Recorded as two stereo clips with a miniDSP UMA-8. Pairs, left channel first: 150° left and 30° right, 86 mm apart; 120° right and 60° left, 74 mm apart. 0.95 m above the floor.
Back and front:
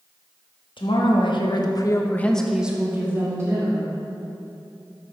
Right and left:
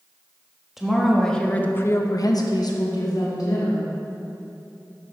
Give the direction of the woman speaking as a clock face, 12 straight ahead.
7 o'clock.